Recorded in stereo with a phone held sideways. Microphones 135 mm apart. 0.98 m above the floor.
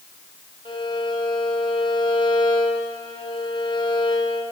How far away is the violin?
About 4.5 m.